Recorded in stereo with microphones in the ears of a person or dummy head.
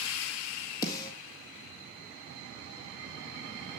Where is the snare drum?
25° left (ahead or behind), 1.7 m.